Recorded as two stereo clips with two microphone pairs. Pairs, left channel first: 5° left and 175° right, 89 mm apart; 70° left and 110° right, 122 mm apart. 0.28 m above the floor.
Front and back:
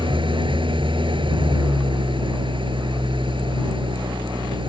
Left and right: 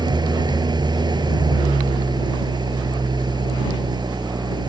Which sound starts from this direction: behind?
An engine running, at 0.0 s.